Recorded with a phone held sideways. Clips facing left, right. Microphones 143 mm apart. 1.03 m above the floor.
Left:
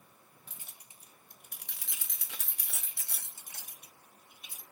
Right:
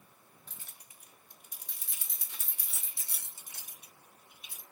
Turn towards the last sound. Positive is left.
turn(degrees=40)  # may be behind; listen again after turning